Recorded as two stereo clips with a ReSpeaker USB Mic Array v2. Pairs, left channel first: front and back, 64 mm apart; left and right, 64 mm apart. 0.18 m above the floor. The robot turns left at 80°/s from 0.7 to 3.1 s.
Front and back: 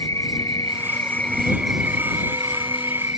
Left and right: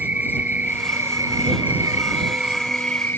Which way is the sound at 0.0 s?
25° right.